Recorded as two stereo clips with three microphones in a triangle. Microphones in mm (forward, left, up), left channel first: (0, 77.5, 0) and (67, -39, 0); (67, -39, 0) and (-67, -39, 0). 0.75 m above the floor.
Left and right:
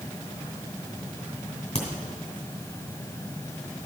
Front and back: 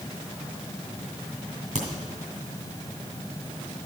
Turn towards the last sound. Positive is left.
turn(degrees=155)